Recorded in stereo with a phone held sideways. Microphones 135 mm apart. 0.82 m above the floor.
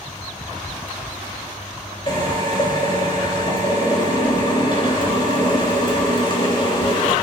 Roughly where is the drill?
Left.